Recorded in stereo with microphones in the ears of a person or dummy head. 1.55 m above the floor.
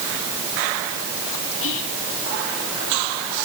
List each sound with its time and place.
1.6 s whispering: 70° left (ahead or behind), 3 m